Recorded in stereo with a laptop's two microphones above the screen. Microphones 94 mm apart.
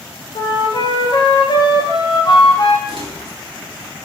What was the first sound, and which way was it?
A flute, 50° left (ahead or behind).